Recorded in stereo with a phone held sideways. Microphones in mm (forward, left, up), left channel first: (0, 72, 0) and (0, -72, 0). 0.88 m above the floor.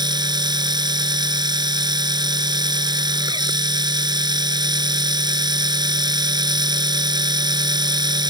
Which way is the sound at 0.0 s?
30° right (ahead or behind).